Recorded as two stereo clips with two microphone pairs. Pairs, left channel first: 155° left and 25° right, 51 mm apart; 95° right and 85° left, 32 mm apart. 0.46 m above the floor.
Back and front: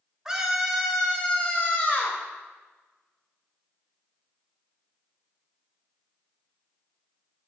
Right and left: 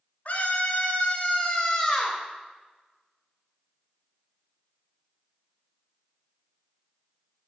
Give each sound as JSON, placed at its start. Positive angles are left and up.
{"t": 0.2, "sound": "a scream", "azimuth_deg": -105, "distance_m": 1.9}